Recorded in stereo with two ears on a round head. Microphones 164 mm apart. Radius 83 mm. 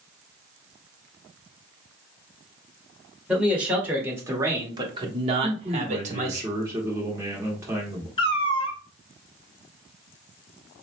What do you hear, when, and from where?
3.3 s a man speaking: 5° right (ahead or behind), 1.6 m; by 6.4 s 40° right (ahead or behind), 1.0 m
5.4 s a man speaking: 15° right (ahead or behind), 1.5 m
8.2 s a cat meowing: 30° left (ahead or behind), 0.7 m